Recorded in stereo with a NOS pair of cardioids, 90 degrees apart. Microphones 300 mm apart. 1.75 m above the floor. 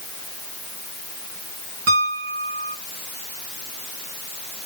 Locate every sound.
1.9 s a piano: 55° right, 1.6 m